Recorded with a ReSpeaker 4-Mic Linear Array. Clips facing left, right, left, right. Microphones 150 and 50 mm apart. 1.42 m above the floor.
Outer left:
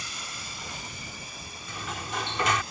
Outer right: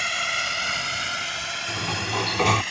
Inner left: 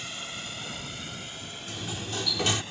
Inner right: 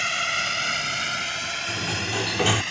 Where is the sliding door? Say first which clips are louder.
Outer right 6 dB, inner right 5 dB; 35° right (ahead or behind).